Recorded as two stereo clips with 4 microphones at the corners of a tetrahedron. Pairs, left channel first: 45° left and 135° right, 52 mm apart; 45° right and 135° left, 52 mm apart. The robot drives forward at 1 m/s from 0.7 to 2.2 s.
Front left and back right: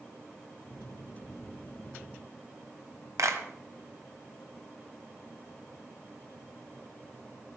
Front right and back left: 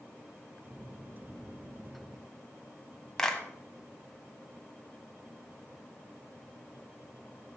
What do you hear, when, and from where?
3.2 s a clap: 120° right, 1.6 m